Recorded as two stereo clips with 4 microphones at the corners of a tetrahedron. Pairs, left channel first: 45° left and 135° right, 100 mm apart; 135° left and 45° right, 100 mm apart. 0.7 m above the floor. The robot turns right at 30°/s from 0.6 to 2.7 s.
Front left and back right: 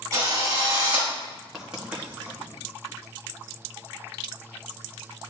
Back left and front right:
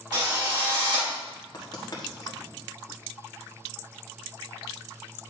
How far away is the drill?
About 3 m.